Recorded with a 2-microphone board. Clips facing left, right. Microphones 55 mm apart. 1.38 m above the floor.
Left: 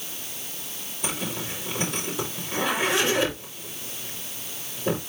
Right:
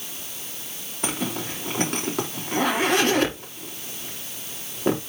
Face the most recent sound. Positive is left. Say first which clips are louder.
# right 3 dB
turn(degrees=-65)  # may be behind; listen again after turning